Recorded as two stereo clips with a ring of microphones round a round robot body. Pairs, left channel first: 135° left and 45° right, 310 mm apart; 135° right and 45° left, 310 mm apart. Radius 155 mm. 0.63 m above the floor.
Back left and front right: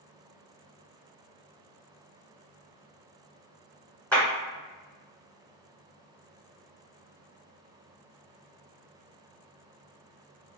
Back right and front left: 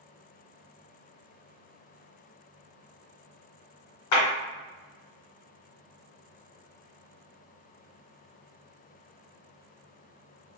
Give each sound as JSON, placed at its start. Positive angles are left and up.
{"t": 4.1, "sound": "a clap", "azimuth_deg": -140, "distance_m": 1.6}